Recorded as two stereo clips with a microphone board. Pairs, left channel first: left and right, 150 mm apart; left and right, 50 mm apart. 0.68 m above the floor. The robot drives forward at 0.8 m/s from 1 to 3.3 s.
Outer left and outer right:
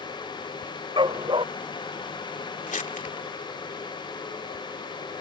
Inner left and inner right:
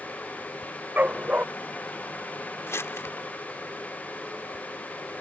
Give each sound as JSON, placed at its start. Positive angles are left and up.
{"t": 1.0, "sound": "a dog barking", "side_deg": -35}
{"t": 2.7, "sound": "crumpling", "side_deg": 60}